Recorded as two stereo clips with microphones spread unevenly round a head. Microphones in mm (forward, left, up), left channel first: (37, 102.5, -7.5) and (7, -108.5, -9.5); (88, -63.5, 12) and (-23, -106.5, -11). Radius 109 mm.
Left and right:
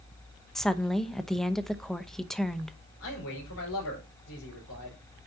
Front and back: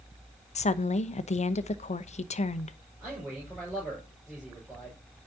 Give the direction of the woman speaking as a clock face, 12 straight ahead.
12 o'clock.